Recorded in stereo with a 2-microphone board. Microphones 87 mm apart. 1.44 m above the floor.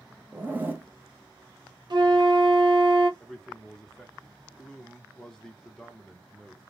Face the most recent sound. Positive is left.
turn(degrees=5)  # may be behind; listen again after turning